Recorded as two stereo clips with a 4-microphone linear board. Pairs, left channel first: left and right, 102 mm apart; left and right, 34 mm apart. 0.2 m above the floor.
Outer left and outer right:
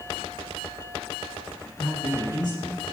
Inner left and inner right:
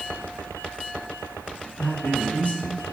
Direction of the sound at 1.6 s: 30° left (ahead or behind).